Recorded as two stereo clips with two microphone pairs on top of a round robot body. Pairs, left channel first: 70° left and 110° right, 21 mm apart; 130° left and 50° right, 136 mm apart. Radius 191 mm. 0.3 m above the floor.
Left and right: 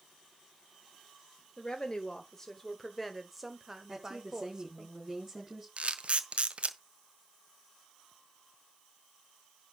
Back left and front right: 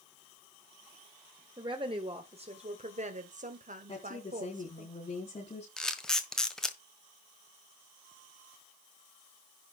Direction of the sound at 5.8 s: 145° right.